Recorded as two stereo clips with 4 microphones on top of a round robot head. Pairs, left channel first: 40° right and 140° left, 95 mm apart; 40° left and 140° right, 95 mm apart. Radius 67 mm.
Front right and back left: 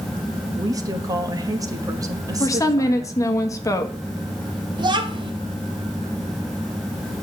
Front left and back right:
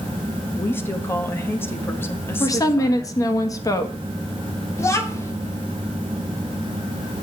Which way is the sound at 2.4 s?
Straight ahead.